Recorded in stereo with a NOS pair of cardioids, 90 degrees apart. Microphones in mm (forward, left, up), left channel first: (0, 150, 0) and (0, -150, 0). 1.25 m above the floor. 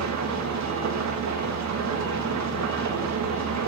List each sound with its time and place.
0.0 s an engine running: 65° right, 1.6 m